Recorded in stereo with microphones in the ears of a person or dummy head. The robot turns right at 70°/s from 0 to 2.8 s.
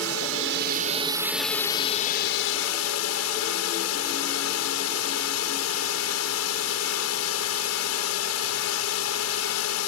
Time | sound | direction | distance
0.0 | a drone | 100° right | ?